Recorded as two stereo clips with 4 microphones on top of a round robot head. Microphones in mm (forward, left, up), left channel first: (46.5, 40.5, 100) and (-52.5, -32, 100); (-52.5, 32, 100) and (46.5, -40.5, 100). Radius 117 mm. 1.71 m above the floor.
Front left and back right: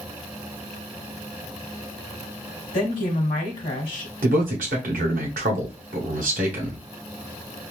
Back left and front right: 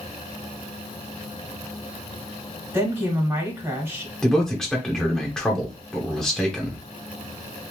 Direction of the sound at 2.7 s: 30° left.